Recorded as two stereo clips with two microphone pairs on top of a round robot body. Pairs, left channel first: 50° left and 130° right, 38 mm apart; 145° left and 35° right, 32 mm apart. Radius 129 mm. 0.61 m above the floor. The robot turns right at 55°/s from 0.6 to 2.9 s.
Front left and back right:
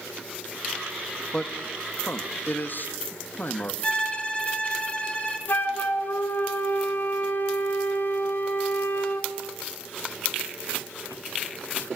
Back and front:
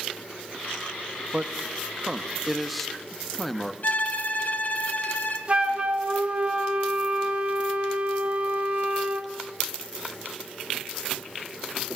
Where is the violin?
115° left, 2.5 m.